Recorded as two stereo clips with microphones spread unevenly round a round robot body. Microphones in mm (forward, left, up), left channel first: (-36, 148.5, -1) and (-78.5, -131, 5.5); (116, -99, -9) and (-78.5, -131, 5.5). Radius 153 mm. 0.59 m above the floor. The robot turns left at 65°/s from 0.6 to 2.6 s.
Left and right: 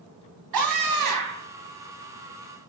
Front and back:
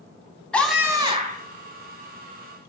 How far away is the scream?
About 3.5 m.